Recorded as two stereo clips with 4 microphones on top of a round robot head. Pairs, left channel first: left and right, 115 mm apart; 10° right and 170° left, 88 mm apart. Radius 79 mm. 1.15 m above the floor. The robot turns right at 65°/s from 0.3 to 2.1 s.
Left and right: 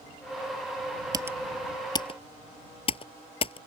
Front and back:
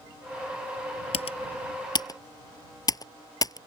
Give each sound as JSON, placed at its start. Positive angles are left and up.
{"t": 1.1, "sound": "typing on a keyboard", "azimuth_deg": -25}